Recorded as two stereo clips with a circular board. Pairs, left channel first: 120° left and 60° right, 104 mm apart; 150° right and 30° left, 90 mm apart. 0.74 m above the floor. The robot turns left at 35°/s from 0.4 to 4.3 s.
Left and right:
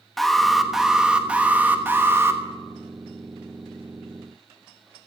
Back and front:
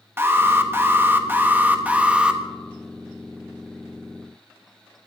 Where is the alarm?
35° left, 1.2 m; by 2.4 s 35° right, 1.2 m.